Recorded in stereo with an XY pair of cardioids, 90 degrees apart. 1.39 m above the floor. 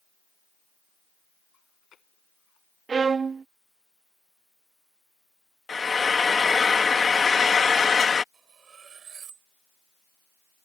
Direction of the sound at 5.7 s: 35° left.